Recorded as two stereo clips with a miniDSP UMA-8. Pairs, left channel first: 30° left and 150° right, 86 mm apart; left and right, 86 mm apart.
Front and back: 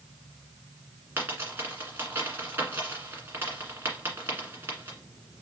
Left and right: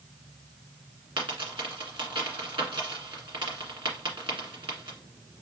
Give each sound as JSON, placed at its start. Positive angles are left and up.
{"t": 1.2, "sound": "a dropped coin", "azimuth_deg": -90, "distance_m": 1.7}